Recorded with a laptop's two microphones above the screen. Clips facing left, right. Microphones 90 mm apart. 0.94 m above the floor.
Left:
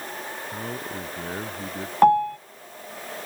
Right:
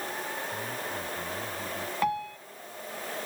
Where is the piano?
45° left (ahead or behind).